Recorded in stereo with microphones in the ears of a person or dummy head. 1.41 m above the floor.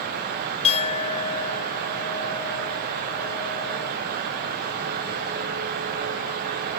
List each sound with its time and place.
0.6 s a clink: 35° left (ahead or behind)